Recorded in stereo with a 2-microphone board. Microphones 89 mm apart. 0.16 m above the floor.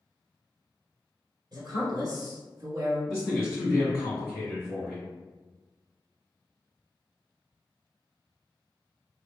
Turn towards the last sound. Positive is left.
turn(degrees=20)  # may be behind; listen again after turning